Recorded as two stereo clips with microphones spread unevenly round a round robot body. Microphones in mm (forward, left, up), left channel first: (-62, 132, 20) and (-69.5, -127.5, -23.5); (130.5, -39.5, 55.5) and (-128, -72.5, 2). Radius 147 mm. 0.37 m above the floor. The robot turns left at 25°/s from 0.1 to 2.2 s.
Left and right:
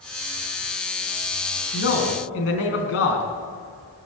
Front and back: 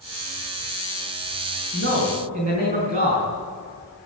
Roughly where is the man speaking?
Behind left.